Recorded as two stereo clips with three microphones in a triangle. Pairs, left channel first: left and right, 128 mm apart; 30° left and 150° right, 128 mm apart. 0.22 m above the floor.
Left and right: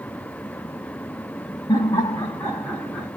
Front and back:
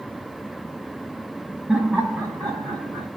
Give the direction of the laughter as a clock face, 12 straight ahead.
8 o'clock.